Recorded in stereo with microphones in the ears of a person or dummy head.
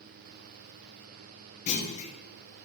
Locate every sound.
1.7 s a clunk: 35° left (ahead or behind), 1.0 m